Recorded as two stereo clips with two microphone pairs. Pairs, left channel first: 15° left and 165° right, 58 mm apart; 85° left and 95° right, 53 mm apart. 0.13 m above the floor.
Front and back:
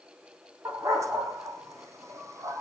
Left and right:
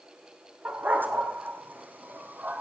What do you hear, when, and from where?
0.7 s a dog barking: 145° right, 3.5 m